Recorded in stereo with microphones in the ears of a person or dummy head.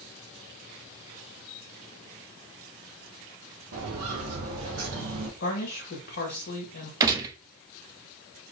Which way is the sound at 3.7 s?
55° right (ahead or behind).